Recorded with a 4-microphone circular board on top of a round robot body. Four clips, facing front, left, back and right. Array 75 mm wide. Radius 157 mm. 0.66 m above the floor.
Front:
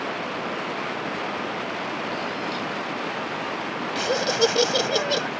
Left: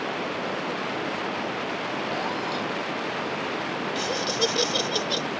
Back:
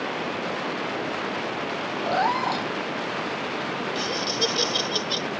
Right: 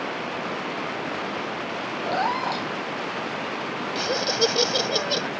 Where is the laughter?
25° right.